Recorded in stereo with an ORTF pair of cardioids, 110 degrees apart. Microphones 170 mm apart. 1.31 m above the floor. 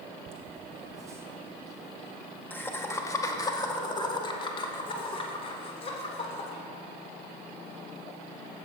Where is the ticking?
I don't hear ticking.